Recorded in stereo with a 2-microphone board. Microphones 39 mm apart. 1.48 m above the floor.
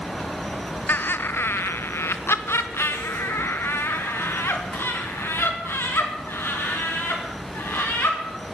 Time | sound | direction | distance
0.9 | laughter | 50° left (ahead or behind) | 0.7 m